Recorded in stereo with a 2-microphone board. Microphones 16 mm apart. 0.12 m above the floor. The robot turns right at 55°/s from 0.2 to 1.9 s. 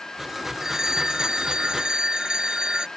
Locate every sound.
0.6 s a phone ringing: 150° right; by 2.9 s 80° right